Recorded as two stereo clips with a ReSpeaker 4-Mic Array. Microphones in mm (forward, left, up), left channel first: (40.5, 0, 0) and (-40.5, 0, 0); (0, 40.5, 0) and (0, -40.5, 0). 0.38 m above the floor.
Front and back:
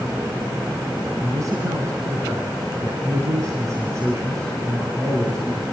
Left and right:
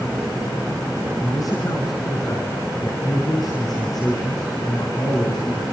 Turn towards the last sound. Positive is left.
turn(degrees=125)